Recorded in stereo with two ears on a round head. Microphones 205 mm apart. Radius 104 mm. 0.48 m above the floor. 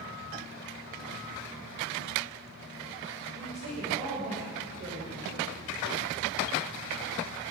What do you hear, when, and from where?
3.4 s a woman speaking: 40° right (ahead or behind), 2.5 m